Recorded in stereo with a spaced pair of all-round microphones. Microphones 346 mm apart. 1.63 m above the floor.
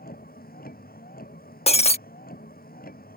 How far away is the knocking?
I don't hear knocking.